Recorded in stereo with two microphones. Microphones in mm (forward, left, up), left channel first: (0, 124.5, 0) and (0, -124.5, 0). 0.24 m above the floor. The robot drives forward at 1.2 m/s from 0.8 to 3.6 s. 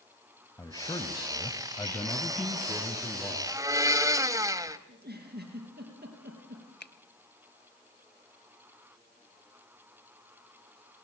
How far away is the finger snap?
About 0.9 m.